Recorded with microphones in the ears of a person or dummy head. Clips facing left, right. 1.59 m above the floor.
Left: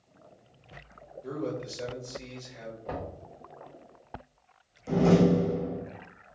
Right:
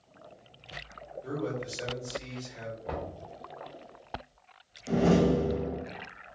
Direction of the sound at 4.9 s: 15° right (ahead or behind).